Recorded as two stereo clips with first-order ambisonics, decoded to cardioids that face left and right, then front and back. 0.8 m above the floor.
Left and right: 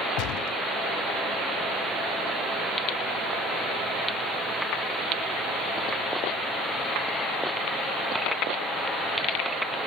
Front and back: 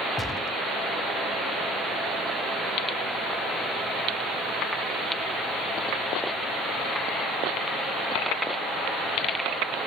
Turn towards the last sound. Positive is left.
turn(degrees=80)